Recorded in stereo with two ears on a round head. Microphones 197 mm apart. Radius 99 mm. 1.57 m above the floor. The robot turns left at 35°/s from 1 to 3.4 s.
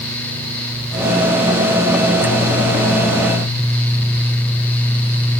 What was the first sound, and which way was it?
Only background noise.